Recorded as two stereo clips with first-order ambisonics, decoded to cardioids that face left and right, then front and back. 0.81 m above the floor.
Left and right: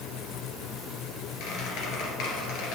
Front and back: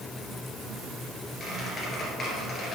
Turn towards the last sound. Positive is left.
turn(degrees=70)